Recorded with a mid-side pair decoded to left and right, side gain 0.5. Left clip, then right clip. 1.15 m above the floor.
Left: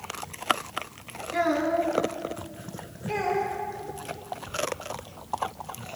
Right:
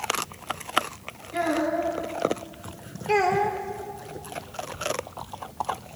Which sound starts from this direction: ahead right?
A child speaking, at 3.1 s.